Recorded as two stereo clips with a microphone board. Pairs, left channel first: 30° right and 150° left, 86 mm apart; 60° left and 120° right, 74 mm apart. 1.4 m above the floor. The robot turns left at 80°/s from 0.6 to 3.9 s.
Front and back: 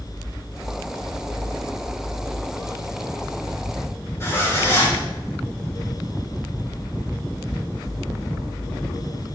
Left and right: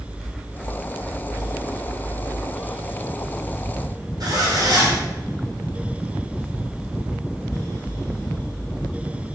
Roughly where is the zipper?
Right.